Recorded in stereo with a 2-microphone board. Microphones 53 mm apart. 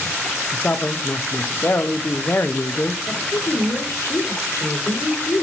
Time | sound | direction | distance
0.5 | a man speaking | 45° left (ahead or behind) | 0.9 m
3.1 | a woman speaking | 80° left | 3.5 m